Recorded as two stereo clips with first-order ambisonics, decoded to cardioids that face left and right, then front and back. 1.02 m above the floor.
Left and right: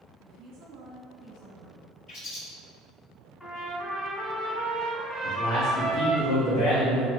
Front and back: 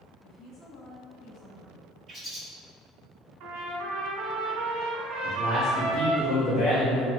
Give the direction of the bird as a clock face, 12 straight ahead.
9 o'clock.